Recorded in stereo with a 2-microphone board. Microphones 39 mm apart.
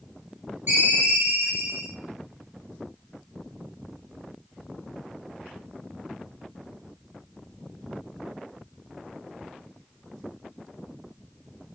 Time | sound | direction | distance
0.7 | a ringtone | 65° right (ahead or behind) | 2 m